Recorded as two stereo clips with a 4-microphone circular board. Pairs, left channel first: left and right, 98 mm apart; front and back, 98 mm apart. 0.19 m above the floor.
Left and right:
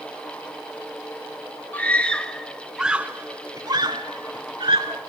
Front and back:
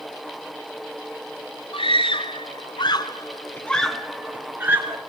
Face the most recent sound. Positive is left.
turn(degrees=-120)